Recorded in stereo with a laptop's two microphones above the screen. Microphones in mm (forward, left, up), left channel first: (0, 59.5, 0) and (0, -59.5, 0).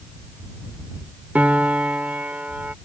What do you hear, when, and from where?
1.4 s a piano: 10° right (ahead or behind)